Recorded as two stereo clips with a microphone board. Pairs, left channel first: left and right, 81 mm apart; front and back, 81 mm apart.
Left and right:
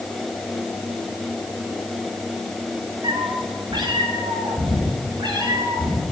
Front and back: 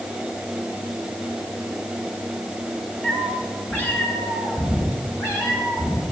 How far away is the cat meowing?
About 3.5 m.